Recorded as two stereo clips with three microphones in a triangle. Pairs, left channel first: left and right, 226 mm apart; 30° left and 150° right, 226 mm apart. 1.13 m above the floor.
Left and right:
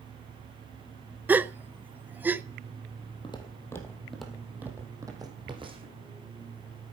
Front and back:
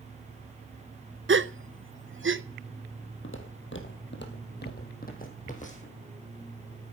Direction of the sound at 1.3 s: 175° right.